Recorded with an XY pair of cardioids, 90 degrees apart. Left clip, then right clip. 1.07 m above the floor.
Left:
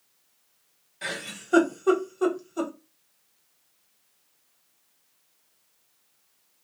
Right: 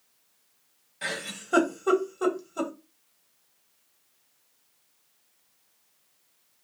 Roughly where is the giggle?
Ahead.